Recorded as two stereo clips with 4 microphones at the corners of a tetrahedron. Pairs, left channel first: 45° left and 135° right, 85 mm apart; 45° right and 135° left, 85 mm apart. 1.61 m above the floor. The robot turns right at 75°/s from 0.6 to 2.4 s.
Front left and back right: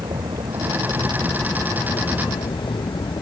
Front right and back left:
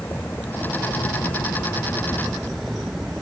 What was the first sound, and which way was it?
A vehicle, 110° right.